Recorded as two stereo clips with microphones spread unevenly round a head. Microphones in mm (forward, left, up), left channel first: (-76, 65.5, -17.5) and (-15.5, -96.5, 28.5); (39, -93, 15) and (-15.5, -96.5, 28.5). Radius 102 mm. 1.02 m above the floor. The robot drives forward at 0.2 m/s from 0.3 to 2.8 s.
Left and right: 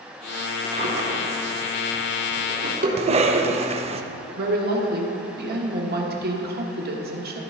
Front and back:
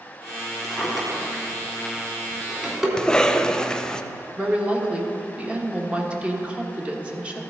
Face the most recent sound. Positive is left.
turn(degrees=-105)